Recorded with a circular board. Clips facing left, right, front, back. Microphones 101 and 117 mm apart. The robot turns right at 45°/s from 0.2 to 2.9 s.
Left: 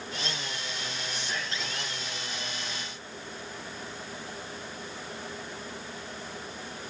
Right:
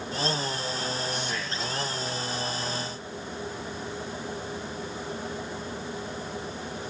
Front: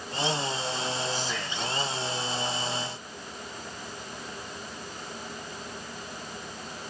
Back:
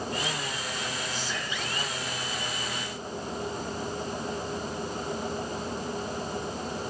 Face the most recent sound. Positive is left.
turn(degrees=180)